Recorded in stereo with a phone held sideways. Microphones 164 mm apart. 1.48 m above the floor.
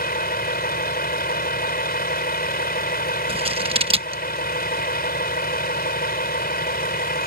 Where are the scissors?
35° right (ahead or behind).